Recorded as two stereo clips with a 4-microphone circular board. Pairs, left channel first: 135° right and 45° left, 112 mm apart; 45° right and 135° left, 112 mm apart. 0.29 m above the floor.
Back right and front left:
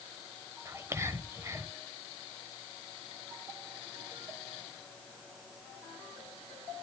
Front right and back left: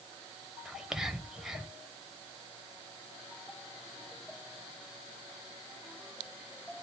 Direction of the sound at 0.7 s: 55° left.